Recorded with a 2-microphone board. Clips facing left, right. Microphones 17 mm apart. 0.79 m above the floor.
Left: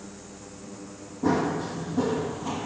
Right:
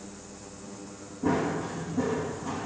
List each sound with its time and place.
1.2 s running footsteps: 50° left (ahead or behind), 2.5 m; by 2.7 s 35° left (ahead or behind), 1.4 m